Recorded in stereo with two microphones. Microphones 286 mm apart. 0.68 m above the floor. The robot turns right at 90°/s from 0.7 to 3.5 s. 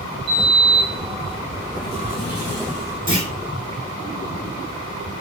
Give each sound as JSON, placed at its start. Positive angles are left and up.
{"t": 0.3, "sound": "a sliding door", "azimuth_deg": -75, "distance_m": 1.2}
{"t": 3.1, "sound": "a clunk", "side_deg": 30, "distance_m": 1.2}